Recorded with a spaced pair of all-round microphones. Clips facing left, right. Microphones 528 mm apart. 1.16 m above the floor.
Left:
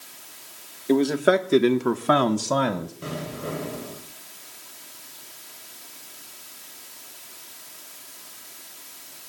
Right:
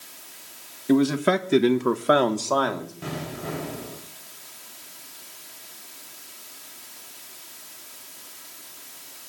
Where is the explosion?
15° right (ahead or behind), 6 m.